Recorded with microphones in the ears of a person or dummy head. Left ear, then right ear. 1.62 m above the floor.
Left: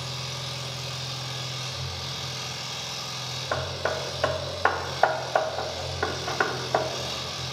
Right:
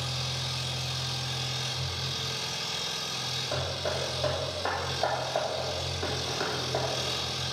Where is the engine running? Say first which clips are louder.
Right 1 dB; 5° left (ahead or behind), 3.5 m.